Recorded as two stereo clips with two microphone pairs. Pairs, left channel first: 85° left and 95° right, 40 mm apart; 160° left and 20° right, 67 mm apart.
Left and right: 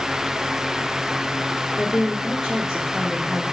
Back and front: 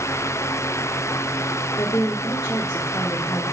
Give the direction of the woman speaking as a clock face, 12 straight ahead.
6 o'clock.